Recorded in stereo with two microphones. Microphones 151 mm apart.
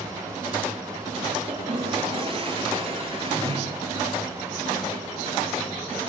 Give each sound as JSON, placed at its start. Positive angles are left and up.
{"t": 1.5, "sound": "a toilet flushing", "side_deg": -35, "distance_m": 7.0}